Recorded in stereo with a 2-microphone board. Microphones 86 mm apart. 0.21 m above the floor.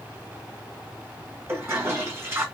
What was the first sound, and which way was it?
A toilet flushing, 30° right (ahead or behind).